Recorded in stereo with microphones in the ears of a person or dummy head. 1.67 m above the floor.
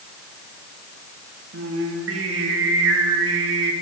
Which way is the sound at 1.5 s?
85° right.